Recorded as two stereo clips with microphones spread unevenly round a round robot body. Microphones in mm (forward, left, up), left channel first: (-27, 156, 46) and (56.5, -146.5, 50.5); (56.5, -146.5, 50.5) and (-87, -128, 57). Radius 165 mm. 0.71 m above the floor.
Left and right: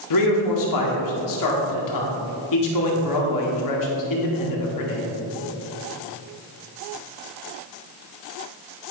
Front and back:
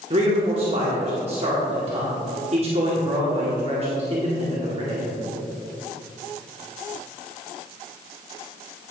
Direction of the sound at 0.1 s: 120° left.